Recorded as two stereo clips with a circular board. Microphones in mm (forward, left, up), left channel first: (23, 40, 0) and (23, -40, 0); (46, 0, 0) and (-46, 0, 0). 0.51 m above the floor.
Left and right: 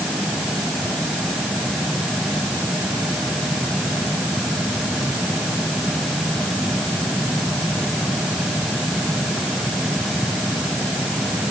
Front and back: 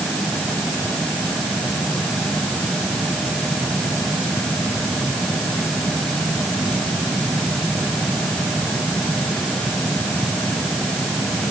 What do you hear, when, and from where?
Only background noise.